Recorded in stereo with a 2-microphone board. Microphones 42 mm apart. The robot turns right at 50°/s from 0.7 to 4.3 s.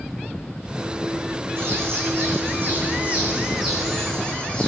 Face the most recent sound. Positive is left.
turn(degrees=25)